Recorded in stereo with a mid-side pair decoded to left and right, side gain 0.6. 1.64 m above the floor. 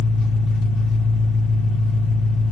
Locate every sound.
0.0 s an engine running: 60° left, 2 m